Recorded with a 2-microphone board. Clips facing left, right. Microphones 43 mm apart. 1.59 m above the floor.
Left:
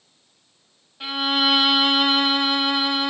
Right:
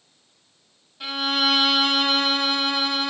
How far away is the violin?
About 0.9 m.